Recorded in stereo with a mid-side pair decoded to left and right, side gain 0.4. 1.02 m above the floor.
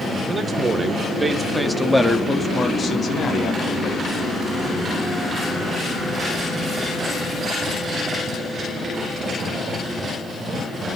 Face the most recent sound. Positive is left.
turn(degrees=65)